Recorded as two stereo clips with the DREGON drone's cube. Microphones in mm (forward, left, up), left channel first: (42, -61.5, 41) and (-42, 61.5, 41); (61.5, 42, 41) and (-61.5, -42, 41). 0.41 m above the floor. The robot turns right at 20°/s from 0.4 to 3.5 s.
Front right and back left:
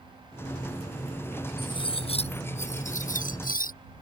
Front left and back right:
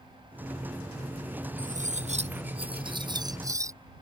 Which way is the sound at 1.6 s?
115° right.